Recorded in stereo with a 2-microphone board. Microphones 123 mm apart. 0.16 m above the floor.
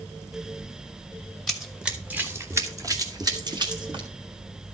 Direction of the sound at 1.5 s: 5° left (ahead or behind).